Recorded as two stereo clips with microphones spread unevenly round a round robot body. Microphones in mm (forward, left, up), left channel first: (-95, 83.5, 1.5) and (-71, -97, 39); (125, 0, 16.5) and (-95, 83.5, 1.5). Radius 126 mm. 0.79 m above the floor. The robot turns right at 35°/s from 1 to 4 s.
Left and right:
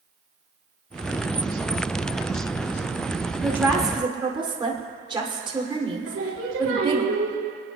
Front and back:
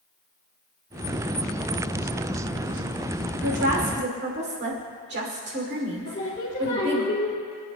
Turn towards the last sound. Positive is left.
turn(degrees=-80)